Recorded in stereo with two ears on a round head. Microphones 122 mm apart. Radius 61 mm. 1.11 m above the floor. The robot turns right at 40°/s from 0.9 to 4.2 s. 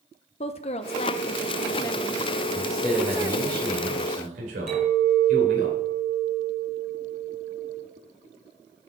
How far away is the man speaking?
About 5 m.